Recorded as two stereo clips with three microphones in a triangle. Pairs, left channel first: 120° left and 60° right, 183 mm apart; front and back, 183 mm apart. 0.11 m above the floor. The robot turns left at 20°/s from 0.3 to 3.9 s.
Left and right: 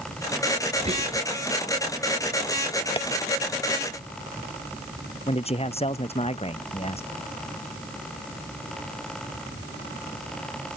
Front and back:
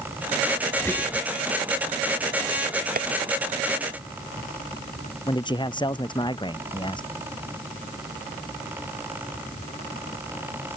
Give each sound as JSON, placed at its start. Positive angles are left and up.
{"t": 0.8, "sound": "whispering", "azimuth_deg": -70}
{"t": 3.0, "sound": "tapping", "azimuth_deg": 170}
{"t": 5.3, "sound": "a man speaking", "azimuth_deg": 65}